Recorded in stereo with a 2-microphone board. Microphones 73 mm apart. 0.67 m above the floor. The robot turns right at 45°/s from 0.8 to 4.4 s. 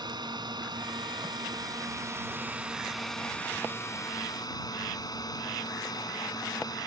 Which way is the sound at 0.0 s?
100° right.